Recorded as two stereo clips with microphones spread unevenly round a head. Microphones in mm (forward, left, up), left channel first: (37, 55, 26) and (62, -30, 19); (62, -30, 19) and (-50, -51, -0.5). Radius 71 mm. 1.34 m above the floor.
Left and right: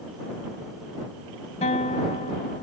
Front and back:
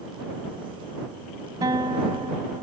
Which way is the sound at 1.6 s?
120° left.